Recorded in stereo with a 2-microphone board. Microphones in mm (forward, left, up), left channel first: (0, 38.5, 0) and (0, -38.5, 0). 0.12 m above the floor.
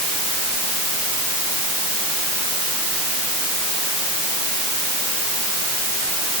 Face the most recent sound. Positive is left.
No sound to turn to.